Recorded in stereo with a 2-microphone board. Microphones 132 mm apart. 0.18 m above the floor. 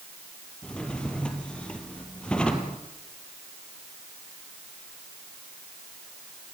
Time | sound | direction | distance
0.6 | a drawer | 5° left (ahead or behind) | 2.5 m